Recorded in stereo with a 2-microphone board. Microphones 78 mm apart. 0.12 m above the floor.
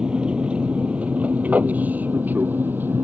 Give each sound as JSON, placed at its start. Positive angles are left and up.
{"t": 0.0, "sound": "an aircraft", "side_deg": -10}